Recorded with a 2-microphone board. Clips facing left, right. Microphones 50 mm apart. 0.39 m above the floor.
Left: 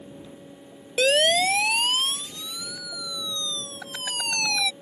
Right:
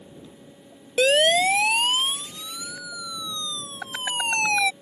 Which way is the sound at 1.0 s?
10° right (ahead or behind).